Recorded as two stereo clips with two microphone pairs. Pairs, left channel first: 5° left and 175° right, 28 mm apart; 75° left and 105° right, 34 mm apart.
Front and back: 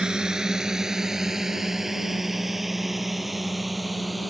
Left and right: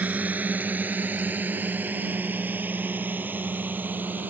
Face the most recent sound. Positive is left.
turn(degrees=-85)